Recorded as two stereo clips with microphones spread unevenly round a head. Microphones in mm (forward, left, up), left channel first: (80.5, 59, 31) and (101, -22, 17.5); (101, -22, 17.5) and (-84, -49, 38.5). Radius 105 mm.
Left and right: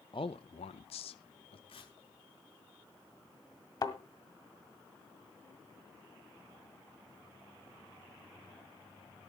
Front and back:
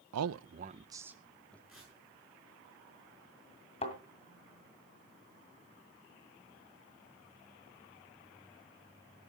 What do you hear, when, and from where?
0.1 s a man speaking: 170° left, 0.5 m; by 1.6 s 90° left, 1.0 m
1.7 s tearing paper: 100° left, 7 m
3.8 s a thud: 75° left, 1.8 m